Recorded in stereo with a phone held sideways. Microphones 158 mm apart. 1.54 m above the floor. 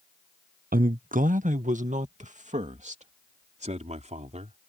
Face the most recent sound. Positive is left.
turn(degrees=-50)  # may be behind; listen again after turning